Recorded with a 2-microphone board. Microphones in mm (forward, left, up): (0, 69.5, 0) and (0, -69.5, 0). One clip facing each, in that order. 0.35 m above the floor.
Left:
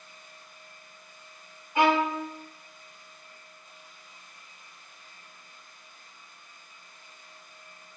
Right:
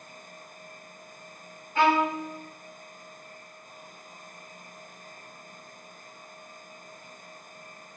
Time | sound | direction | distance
1.8 | a violin | 15° left (ahead or behind) | 0.8 m